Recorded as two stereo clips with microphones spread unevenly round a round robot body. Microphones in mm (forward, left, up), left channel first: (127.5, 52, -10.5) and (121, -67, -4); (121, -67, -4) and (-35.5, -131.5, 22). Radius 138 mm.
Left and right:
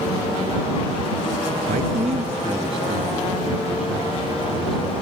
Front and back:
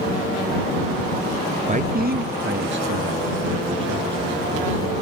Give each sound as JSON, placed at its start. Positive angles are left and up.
{"t": 1.7, "sound": "a man speaking", "azimuth_deg": -105}